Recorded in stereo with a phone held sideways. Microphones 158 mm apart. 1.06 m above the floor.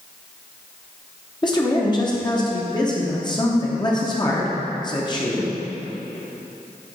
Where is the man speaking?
30° left (ahead or behind), 0.7 m.